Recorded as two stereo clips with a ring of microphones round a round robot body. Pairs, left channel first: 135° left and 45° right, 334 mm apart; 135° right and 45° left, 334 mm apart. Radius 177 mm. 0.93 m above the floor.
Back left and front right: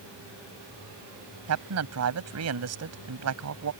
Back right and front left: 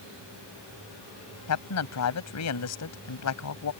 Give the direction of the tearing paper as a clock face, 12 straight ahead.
I don't hear tearing paper.